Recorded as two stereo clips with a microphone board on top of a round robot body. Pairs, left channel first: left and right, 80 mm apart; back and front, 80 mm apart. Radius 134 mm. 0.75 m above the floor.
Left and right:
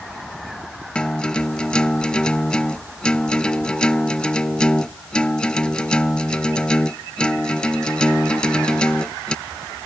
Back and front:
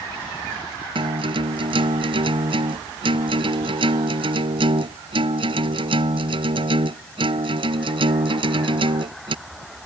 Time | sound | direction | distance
0.9 | a guitar | 10° left | ?